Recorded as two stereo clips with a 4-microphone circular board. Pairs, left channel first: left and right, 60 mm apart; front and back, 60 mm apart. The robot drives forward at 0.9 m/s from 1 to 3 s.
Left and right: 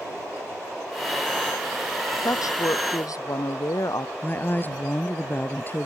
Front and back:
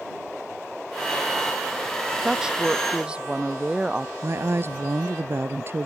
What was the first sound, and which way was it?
A woman speaking, 100° left.